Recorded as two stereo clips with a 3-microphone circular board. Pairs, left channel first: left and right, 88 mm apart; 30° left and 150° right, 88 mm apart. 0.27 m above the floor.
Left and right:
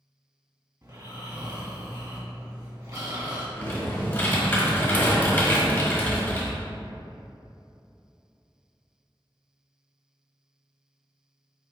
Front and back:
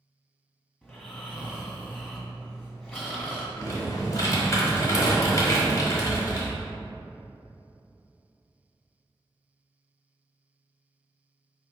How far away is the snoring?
About 1.5 m.